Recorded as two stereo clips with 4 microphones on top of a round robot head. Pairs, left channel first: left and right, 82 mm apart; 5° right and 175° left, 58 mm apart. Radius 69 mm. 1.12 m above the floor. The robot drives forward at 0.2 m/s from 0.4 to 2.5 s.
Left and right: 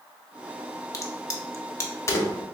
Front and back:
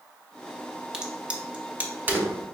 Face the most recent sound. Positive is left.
turn(degrees=135)